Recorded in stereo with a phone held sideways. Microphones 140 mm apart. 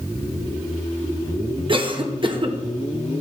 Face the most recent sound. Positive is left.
turn(degrees=-40)  # may be behind; listen again after turning